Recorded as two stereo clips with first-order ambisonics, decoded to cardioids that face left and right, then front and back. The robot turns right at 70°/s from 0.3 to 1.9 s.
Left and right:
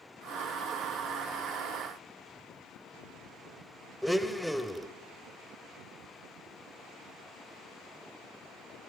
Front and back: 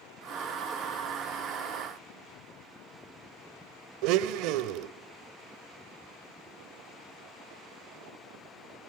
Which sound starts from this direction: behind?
A blender, at 4.0 s.